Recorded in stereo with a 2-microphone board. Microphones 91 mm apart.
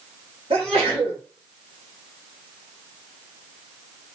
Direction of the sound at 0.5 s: 80° right.